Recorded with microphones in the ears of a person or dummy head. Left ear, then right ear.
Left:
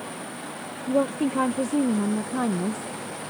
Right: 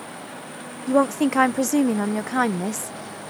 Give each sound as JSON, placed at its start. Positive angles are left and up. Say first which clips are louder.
{"t": 0.9, "sound": "a woman speaking", "louder": "right 4 dB", "side_deg": -60}